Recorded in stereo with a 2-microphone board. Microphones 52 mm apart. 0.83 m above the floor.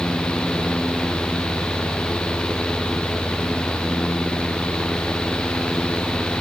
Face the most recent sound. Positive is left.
No sound to turn to.